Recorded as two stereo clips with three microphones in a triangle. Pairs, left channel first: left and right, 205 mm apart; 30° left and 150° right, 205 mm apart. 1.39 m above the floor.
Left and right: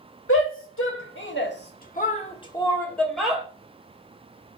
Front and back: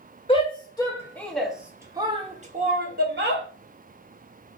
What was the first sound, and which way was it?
A shout, 90° left.